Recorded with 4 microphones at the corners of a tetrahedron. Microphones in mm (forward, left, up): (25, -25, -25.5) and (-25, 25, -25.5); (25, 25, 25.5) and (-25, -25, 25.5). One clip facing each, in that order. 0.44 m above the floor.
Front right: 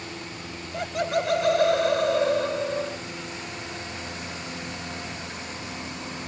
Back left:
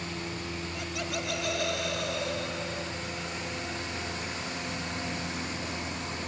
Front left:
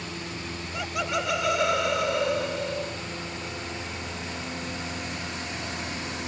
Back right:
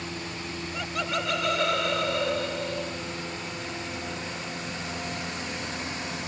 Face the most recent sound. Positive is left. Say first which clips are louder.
# front right 12 dB, front left 2 dB
turn(degrees=-35)